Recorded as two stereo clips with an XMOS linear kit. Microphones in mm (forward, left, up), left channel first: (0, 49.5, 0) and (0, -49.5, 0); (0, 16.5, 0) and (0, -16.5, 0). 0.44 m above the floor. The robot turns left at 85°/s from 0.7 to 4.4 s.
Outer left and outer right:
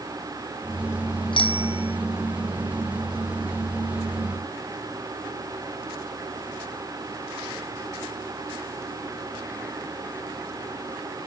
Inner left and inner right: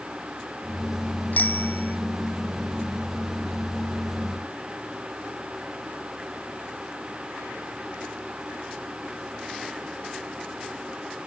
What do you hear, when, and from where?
1.3 s a bicycle bell: 120° left; by 2.0 s 70° left